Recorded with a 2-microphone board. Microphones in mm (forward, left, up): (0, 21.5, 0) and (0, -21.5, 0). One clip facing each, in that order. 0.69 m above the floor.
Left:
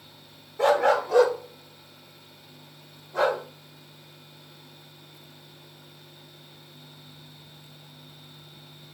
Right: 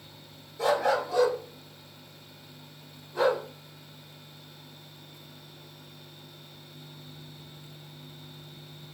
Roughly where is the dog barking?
Left.